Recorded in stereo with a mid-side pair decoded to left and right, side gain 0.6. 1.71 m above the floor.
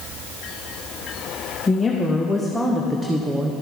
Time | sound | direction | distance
1.7 | a woman speaking | 15° left | 1.8 m